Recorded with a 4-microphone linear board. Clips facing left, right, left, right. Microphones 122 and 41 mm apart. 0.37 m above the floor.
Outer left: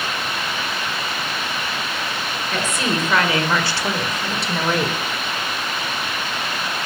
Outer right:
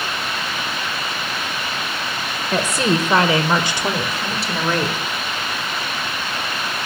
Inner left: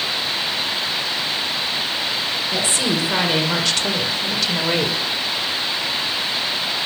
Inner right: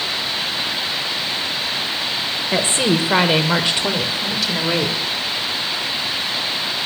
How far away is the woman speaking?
About 1.5 m.